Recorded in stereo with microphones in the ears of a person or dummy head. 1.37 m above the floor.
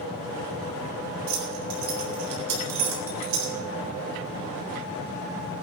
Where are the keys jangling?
80° right, 4 m.